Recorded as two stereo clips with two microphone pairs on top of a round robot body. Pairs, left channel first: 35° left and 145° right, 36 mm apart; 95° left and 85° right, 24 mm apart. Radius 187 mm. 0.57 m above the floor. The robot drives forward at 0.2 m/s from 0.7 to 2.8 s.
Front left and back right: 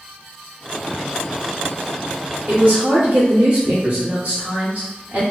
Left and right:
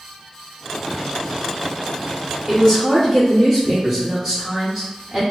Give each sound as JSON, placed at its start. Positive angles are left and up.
{"t": 2.5, "sound": "a woman speaking", "azimuth_deg": -145, "distance_m": 1.6}